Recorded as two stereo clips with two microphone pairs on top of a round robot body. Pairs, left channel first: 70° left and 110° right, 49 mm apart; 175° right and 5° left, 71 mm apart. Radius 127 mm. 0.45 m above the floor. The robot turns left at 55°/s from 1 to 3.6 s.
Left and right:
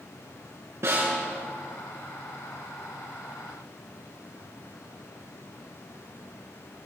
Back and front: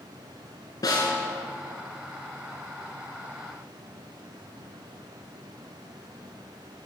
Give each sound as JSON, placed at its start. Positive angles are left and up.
{"t": 0.8, "sound": "a snare drum", "azimuth_deg": -140, "distance_m": 7.5}